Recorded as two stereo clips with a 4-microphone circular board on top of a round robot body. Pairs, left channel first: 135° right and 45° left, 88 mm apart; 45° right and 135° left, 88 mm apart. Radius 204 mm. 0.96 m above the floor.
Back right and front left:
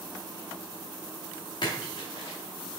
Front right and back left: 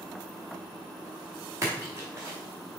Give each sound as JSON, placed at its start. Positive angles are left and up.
{"t": 1.6, "sound": "a splash", "azimuth_deg": -165, "distance_m": 0.6}